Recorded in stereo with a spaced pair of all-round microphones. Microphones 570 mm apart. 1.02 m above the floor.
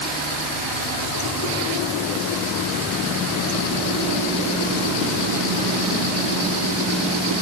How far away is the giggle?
I don't hear a giggle.